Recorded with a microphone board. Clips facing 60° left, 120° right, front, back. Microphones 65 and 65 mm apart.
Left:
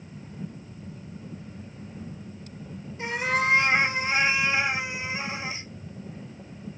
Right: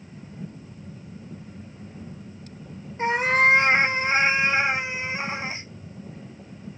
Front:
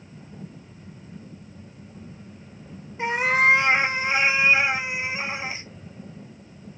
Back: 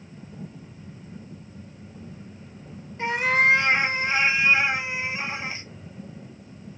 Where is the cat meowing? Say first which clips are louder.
Right 6 dB, front 1 dB; 75° right, 0.8 m.